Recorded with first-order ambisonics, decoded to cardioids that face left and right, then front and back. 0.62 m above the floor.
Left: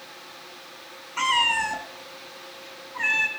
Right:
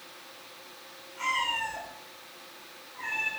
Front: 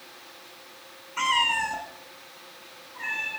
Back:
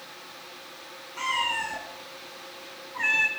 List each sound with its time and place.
1.2 s a cat meowing: 65° left, 2.5 m; by 3.3 s 125° left, 2.5 m